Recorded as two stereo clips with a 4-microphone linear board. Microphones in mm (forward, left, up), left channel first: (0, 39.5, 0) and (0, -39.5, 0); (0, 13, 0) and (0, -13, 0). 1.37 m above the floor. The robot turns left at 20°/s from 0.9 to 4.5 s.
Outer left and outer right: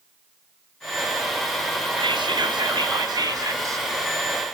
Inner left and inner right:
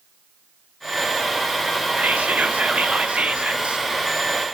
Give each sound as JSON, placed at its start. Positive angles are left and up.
{"t": 2.0, "sound": "whispering", "azimuth_deg": -100, "distance_m": 0.8}